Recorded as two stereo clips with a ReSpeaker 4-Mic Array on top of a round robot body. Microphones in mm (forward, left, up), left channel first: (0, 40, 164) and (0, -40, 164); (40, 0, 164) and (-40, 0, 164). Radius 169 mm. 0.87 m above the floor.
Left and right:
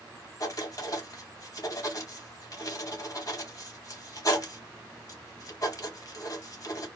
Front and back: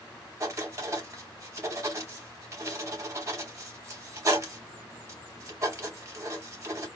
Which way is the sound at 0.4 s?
130° left.